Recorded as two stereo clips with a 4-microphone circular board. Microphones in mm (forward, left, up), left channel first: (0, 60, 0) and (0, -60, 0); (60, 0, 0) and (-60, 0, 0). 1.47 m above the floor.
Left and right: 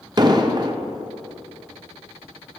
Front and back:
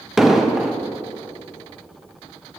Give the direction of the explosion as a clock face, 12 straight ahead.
3 o'clock.